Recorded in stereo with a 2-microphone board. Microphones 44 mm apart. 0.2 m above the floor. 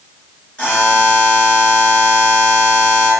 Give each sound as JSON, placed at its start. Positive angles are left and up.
{"t": 0.6, "sound": "a buzzer", "side_deg": 25, "distance_m": 1.7}